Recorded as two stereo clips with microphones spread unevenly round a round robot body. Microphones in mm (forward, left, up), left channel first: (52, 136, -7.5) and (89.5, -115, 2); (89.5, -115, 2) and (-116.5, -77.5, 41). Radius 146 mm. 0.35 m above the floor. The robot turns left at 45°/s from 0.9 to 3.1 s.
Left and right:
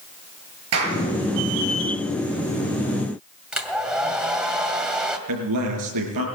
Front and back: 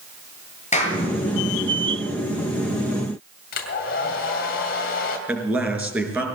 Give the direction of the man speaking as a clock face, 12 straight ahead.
4 o'clock.